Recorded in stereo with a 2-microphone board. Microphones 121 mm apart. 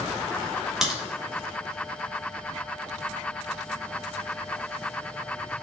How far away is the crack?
About 2 m.